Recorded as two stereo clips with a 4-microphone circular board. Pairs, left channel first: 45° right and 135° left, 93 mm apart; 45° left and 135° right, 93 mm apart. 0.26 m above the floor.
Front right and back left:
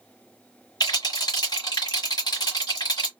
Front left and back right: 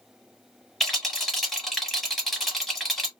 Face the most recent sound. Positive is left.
turn(degrees=-40)